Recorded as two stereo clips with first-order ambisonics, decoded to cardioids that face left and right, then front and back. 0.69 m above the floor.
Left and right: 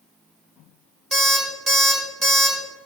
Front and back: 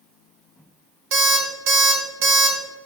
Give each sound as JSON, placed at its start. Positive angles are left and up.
{"t": 1.1, "sound": "an alarm clock", "azimuth_deg": -160, "distance_m": 1.7}